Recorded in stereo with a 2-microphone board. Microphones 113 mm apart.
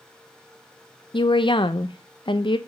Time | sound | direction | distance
1.1 | a woman speaking | 45° left (ahead or behind) | 0.6 m